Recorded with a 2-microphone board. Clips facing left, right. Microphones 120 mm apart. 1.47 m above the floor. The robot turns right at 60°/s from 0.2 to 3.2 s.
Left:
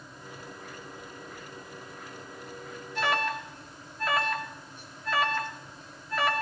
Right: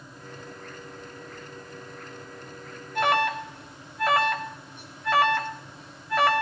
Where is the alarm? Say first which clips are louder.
Right 5 dB; 55° right (ahead or behind), 1.1 m; by 6.4 s 70° right (ahead or behind), 1.1 m.